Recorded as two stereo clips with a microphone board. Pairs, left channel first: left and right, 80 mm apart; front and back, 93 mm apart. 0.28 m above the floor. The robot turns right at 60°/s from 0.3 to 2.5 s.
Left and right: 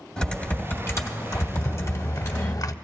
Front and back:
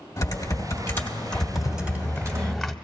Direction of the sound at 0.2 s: 15° left.